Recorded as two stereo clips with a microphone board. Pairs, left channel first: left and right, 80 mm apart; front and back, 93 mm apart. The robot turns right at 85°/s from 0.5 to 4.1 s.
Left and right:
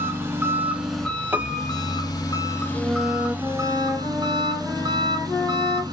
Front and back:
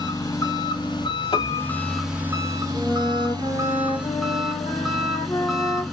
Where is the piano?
25° right, 0.8 m; by 2.1 s 40° left, 0.8 m.